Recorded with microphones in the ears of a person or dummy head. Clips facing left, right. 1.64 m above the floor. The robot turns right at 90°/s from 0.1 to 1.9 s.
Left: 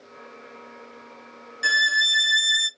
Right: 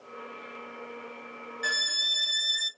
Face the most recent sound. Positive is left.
turn(degrees=15)  # may be behind; listen again after turning